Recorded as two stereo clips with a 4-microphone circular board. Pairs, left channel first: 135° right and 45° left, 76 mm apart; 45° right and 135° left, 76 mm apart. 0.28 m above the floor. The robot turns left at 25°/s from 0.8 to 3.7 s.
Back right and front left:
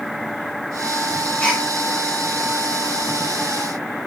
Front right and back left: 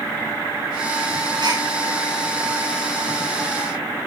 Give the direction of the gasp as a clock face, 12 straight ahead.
7 o'clock.